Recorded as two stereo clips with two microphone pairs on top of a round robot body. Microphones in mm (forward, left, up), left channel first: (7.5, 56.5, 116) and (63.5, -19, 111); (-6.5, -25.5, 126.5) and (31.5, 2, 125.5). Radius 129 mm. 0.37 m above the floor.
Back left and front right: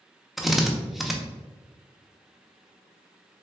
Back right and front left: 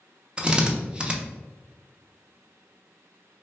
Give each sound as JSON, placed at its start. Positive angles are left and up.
{"t": 0.4, "sound": "a drill", "azimuth_deg": 25, "distance_m": 0.8}